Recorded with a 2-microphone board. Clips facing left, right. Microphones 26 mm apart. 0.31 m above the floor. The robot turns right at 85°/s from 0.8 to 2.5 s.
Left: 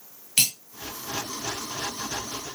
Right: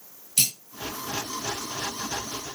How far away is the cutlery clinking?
About 1.6 m.